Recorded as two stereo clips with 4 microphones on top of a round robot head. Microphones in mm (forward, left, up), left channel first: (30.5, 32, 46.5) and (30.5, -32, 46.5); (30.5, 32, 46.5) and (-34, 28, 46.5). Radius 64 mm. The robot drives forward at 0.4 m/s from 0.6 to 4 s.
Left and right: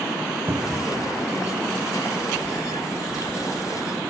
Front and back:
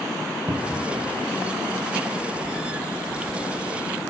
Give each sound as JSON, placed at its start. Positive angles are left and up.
{"t": 0.5, "sound": "a cupboard door", "azimuth_deg": -135, "distance_m": 0.6}